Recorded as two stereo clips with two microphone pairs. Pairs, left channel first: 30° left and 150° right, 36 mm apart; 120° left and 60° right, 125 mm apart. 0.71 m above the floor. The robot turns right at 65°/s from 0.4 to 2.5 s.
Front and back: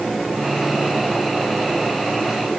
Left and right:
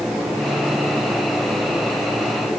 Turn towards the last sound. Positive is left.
No sound to turn to.